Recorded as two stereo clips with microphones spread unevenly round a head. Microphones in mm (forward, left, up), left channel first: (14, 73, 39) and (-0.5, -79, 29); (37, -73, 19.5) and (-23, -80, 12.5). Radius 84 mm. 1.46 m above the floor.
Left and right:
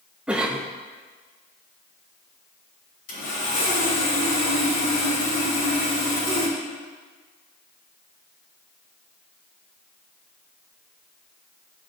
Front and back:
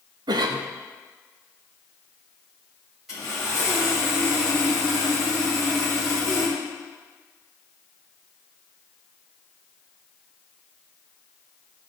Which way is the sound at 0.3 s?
Straight behind.